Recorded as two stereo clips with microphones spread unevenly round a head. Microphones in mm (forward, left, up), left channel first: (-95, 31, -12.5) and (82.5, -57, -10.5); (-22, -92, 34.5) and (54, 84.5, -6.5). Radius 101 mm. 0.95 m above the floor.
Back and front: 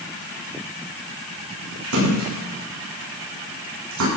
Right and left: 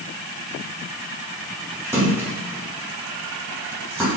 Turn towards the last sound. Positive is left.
turn(degrees=-15)